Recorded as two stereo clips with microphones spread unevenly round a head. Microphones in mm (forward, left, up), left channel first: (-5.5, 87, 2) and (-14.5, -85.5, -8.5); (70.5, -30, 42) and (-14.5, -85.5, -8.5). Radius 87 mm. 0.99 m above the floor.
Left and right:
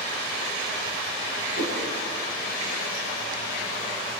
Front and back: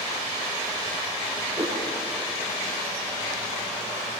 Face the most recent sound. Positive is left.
turn(degrees=120)